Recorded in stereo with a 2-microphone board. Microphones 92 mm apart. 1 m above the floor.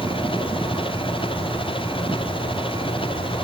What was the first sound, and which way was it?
An engine running, 65° left (ahead or behind).